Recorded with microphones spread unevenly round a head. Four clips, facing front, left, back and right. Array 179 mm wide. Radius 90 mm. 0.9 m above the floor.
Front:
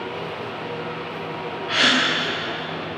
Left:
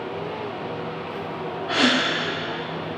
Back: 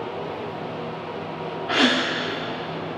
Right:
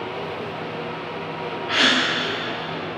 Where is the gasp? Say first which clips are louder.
Left 1 dB, back 1 dB; 155° left, 2.5 m.